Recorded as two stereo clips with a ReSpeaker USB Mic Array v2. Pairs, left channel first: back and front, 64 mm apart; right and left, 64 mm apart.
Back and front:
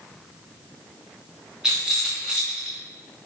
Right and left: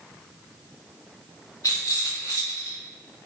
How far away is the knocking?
I don't hear knocking.